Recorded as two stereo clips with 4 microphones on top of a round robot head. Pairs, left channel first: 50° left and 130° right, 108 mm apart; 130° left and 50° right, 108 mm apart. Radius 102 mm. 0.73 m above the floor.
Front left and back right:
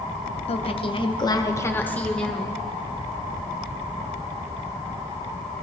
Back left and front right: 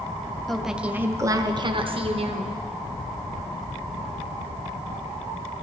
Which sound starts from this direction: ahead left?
A woman speaking, at 0.5 s.